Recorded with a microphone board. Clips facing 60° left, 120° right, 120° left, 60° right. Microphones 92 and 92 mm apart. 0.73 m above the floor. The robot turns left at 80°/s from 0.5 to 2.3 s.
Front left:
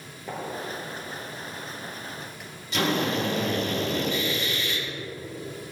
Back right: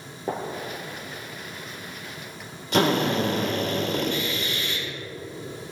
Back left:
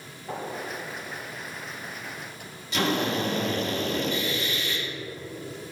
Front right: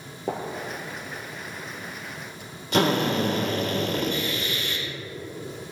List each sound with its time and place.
0.3 s a gunshot: 65° right, 2.5 m; by 2.5 s 150° left, 2.5 m
2.7 s a drill: 90° right, 2.5 m